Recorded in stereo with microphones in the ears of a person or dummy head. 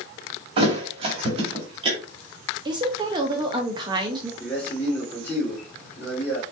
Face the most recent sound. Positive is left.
turn(degrees=5)  # may be behind; listen again after turning